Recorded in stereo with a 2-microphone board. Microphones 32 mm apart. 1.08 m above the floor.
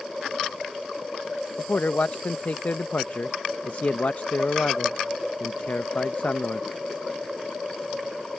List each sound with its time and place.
1.6 s a man speaking: 65° left (ahead or behind)